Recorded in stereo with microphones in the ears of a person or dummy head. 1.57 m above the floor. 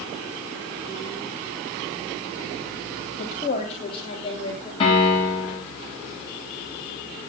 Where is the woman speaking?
40° left (ahead or behind), 3.5 m; by 4.7 s 20° left (ahead or behind), 4 m.